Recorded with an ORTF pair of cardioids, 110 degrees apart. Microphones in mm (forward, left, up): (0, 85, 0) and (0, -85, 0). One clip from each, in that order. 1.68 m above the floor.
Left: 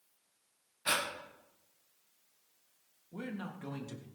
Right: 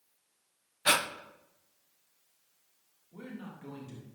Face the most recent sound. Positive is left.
turn(degrees=40)